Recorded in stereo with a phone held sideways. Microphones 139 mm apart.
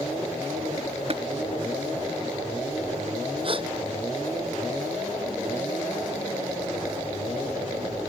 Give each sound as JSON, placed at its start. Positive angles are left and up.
{"t": 1.1, "sound": "tapping", "side_deg": -45}
{"t": 3.4, "sound": "a gasp", "side_deg": -40}